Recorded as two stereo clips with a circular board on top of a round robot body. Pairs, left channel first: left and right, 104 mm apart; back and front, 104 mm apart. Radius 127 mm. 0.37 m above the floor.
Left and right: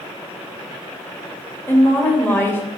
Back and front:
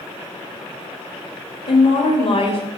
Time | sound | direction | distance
1.7 | a woman speaking | 160° left | 1.8 m